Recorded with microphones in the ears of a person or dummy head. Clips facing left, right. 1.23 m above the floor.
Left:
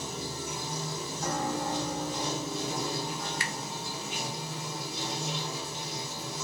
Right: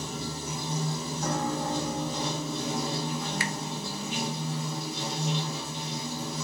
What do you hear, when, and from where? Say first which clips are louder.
0.0 s running water: right 2 dB; 85° right, 1.1 m
1.2 s a piano: right 1 dB; 5° right (ahead or behind), 2 m
3.4 s a finger snap: right 5 dB; 70° right (ahead or behind), 0.5 m